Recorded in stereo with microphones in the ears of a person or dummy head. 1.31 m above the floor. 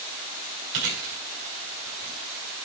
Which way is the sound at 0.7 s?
60° right (ahead or behind).